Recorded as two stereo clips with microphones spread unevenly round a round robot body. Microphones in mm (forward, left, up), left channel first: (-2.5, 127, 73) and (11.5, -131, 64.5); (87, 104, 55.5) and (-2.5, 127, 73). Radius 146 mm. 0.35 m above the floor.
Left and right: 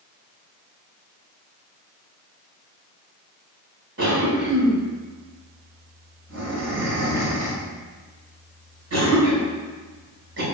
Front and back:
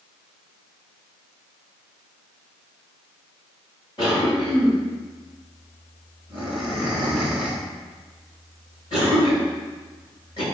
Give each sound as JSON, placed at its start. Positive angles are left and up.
{"t": 4.0, "sound": "a cough", "azimuth_deg": -55, "distance_m": 4.0}